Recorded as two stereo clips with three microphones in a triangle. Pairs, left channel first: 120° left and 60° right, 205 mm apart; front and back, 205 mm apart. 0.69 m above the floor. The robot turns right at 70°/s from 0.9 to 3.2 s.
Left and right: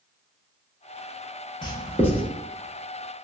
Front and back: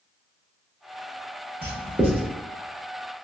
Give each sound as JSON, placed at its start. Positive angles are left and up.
{"t": 1.6, "sound": "writing", "azimuth_deg": 160, "distance_m": 0.9}